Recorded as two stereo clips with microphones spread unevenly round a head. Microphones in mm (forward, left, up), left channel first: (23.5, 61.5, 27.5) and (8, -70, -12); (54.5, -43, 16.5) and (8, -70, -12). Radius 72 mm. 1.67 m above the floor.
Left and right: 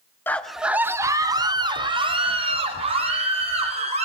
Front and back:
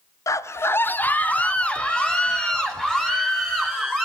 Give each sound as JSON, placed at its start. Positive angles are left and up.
{"t": 0.3, "sound": "a scream", "azimuth_deg": 5, "distance_m": 0.6}